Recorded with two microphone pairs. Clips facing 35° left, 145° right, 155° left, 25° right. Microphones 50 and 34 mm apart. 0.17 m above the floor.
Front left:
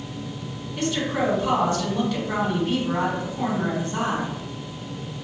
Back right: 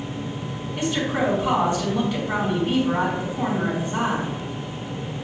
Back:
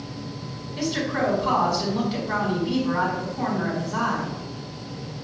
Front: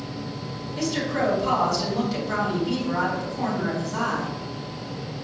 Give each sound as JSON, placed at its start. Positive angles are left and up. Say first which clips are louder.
{"t": 0.8, "sound": "a woman speaking", "louder": "back right 1 dB, even", "azimuth_deg": 170, "distance_m": 1.3}